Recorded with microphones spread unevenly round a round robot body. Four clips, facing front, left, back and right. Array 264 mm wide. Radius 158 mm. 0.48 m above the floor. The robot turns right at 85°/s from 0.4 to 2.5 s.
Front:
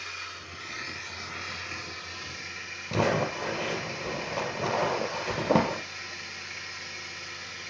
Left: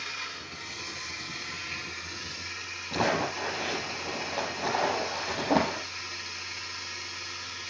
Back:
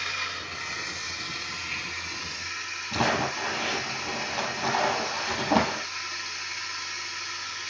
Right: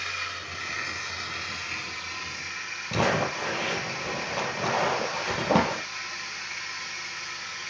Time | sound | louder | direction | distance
0.0 | running water | right 5 dB, back 7 dB | 145° right | 2 m
2.9 | crumpling | right 2 dB, even | 20° right | 5 m